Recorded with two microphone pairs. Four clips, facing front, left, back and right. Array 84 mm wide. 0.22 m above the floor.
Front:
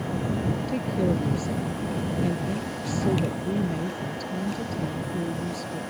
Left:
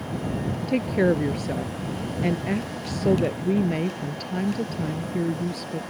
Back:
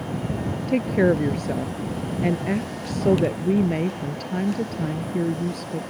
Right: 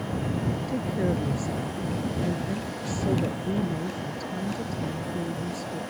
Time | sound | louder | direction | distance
0.7 | a woman speaking | left 9 dB, back 9 dB | 140° left | ?